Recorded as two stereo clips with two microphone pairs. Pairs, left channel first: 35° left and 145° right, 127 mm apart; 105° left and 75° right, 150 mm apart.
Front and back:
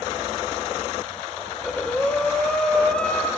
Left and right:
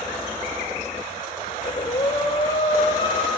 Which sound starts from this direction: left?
Breathing, at 1.5 s.